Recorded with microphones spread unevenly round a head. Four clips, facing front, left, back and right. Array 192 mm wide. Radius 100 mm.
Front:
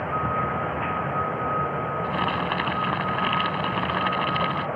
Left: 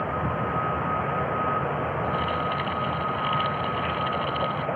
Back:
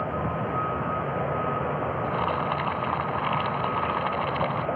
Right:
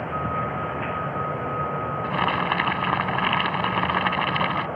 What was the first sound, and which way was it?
Boiling, 60° right.